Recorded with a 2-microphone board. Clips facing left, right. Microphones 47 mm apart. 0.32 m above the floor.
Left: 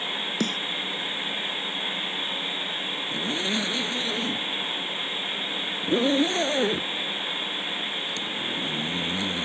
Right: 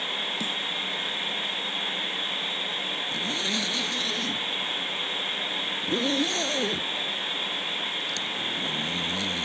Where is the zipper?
20° left (ahead or behind).